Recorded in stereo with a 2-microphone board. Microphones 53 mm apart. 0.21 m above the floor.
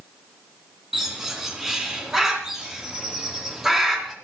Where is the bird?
5° right (ahead or behind), 2.5 m.